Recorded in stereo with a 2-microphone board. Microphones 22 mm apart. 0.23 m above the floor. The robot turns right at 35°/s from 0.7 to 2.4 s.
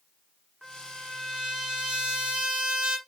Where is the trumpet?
165° right, 1.2 m; by 3.0 s 105° right, 1.2 m.